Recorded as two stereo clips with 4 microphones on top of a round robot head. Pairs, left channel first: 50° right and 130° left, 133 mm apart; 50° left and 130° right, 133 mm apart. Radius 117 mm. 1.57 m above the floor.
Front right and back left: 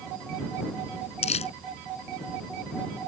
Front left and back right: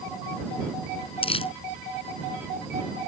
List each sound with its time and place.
1.2 s crumpling: 5° right